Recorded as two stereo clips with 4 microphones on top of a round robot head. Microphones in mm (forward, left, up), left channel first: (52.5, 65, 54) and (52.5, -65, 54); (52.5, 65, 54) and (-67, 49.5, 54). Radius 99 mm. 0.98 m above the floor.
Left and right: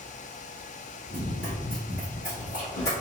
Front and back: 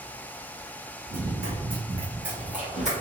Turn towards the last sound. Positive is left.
turn(degrees=100)